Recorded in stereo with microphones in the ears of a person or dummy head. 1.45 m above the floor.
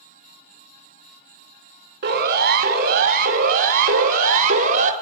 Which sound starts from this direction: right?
A siren, at 2.0 s.